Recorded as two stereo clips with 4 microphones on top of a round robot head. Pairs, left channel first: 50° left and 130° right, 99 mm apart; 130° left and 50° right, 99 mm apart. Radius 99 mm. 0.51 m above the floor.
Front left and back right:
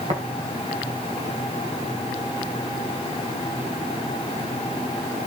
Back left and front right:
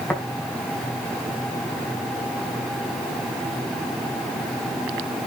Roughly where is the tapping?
Behind.